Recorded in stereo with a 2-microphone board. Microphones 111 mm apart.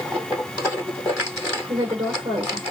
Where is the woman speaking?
65° right (ahead or behind), 2.5 m.